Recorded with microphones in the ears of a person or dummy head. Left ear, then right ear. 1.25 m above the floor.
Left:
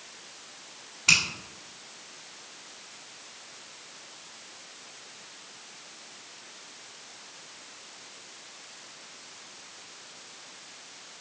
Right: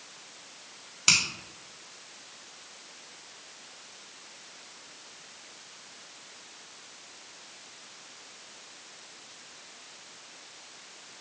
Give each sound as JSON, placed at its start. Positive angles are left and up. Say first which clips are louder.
{"t": 1.1, "sound": "a finger snap", "louder": "left 2 dB", "side_deg": -80, "distance_m": 1.8}